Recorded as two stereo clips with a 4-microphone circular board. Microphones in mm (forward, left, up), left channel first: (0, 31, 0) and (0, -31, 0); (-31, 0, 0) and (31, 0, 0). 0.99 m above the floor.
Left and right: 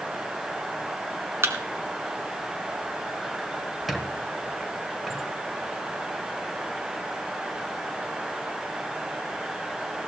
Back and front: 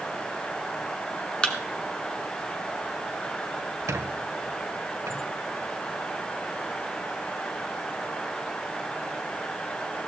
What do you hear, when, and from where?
1.4 s a thud: 110° right, 1.3 m
3.9 s a squeak: straight ahead, 1.1 m